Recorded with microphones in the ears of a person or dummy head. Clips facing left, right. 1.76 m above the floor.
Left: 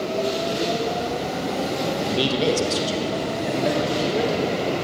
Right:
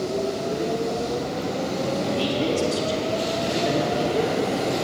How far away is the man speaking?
About 1.4 m.